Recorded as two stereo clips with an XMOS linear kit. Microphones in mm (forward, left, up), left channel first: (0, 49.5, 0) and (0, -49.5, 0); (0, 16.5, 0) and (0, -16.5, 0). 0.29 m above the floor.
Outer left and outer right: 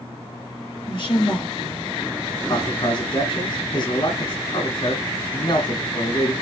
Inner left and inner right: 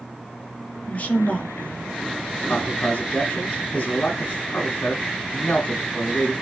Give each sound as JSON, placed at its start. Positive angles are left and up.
{"t": 0.9, "sound": "a woman speaking", "side_deg": 55, "distance_m": 3.5}
{"t": 2.5, "sound": "a man speaking", "side_deg": 50, "distance_m": 2.5}